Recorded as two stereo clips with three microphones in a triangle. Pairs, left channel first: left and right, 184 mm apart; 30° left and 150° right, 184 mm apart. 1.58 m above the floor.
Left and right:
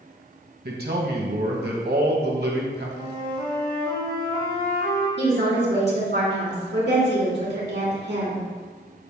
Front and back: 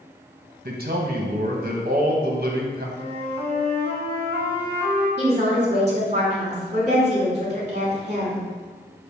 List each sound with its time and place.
0.7 s a man speaking: 115° right, 1.3 m
3.0 s a flute: 105° left, 1.7 m
5.2 s a woman speaking: 100° right, 2.5 m